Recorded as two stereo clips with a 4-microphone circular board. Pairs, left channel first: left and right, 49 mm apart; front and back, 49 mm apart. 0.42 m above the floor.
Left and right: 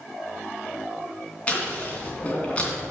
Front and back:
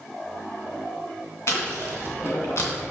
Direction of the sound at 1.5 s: 25° left.